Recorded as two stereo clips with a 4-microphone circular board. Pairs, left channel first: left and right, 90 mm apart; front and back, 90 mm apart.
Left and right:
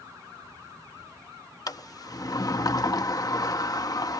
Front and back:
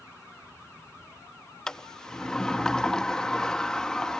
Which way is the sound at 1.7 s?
80° left.